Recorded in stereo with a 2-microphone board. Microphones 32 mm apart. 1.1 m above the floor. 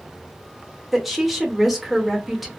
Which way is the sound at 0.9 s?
5° right (ahead or behind).